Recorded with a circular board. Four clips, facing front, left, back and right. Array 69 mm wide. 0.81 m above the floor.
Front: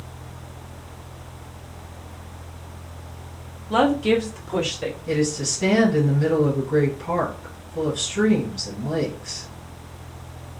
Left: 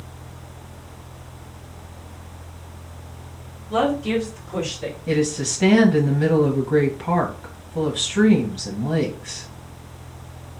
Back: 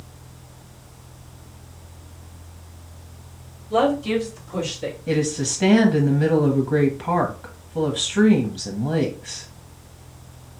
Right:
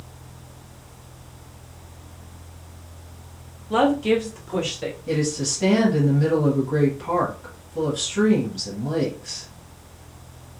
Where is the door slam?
I don't hear a door slam.